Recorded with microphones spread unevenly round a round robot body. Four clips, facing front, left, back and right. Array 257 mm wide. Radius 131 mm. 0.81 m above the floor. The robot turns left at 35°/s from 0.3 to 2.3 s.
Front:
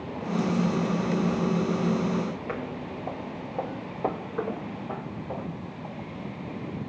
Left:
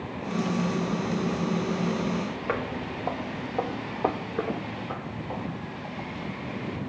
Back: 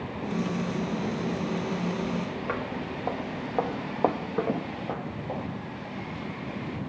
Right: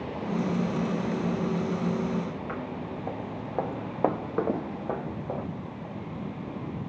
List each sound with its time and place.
2.5 s footsteps: 95° left, 1.0 m; by 5.5 s 120° right, 1.8 m